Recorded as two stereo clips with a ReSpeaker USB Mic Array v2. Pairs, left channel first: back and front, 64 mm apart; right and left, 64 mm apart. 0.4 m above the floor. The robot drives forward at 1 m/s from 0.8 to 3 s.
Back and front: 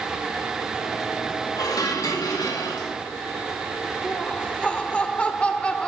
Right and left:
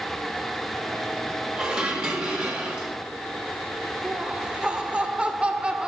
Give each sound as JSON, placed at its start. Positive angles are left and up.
{"t": 1.6, "sound": "dishes clattering", "azimuth_deg": 170, "distance_m": 2.0}
{"t": 4.0, "sound": "laughter", "azimuth_deg": 140, "distance_m": 1.1}